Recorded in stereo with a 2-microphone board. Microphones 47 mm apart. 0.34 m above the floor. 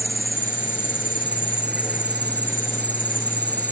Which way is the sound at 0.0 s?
30° right (ahead or behind).